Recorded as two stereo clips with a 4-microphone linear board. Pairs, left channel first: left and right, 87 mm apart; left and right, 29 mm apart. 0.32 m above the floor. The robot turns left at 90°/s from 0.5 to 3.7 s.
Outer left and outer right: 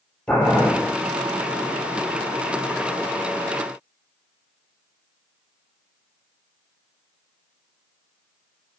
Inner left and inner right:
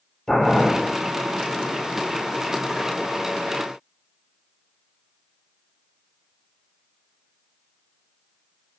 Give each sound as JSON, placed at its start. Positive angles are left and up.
{"t": 0.3, "sound": "boiling", "side_deg": 10, "distance_m": 2.5}